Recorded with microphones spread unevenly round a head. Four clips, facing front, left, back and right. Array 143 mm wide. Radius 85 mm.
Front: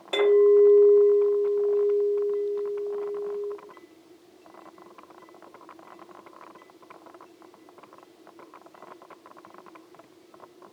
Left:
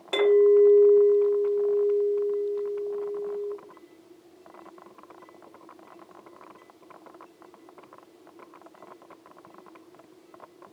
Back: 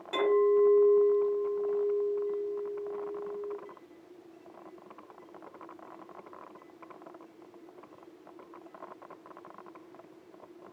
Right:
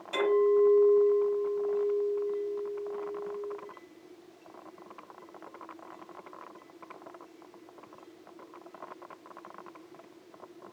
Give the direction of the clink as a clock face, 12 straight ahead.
10 o'clock.